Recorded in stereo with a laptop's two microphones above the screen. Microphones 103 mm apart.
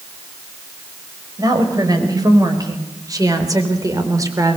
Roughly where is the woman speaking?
Right.